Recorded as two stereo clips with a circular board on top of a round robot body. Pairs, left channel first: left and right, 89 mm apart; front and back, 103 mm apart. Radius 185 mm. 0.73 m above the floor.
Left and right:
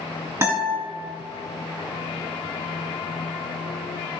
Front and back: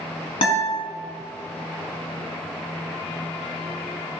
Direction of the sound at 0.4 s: 30° right.